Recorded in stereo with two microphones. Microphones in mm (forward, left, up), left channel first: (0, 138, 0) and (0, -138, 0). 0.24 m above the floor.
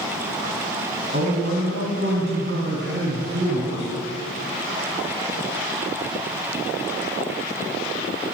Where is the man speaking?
45° right (ahead or behind), 2 m.